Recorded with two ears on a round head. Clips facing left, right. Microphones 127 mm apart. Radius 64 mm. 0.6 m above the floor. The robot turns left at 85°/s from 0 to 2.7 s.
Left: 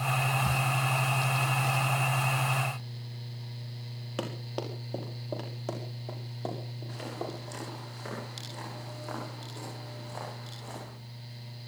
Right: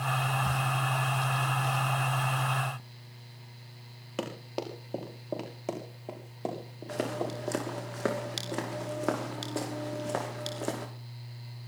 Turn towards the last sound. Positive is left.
turn(degrees=-80)